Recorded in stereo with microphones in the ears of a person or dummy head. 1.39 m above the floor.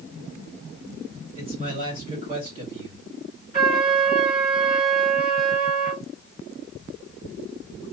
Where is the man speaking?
35° right (ahead or behind), 2.5 m.